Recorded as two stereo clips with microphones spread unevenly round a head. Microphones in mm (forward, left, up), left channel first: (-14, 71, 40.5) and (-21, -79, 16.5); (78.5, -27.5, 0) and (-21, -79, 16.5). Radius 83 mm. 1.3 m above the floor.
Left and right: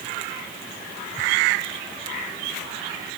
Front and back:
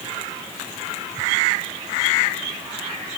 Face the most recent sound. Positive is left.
No sound to turn to.